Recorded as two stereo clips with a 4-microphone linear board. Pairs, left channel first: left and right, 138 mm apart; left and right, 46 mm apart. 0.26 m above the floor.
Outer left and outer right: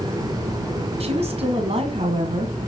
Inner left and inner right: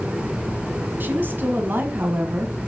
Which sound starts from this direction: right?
A woman speaking, at 1.0 s.